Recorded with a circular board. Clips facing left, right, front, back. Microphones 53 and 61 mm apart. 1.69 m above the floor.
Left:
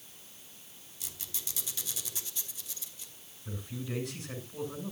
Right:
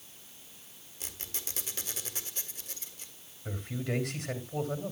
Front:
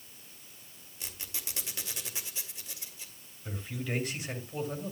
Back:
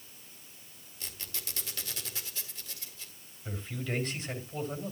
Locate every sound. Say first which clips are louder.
1.0 s a squeak: right 2 dB, even; 70° right, 2 m
3.5 s a man speaking: right 4 dB, even; 80° right, 3 m